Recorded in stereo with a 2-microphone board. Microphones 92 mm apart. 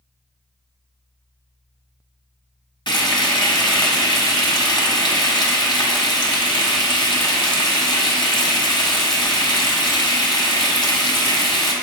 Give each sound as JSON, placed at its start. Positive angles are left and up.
{"t": 2.9, "sound": "frying", "side_deg": 60, "distance_m": 1.5}